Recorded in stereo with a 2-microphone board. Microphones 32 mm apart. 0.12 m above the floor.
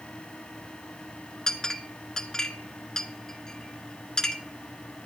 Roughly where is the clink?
Left.